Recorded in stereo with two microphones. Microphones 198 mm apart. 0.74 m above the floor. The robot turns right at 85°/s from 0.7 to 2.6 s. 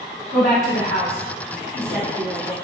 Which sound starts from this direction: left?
A woman speaking, at 0.3 s.